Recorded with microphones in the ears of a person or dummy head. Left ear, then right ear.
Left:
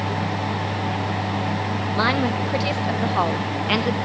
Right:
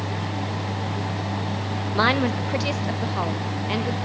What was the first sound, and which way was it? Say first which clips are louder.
A woman speaking: right 1 dB; 15° right (ahead or behind).